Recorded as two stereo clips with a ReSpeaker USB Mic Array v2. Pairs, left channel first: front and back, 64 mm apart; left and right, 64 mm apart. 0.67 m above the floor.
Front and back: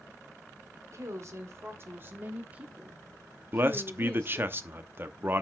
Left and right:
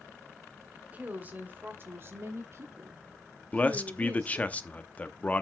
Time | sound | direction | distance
0.7 | a woman speaking | 155° right | 1.8 m
3.5 | a man speaking | 145° left | 0.8 m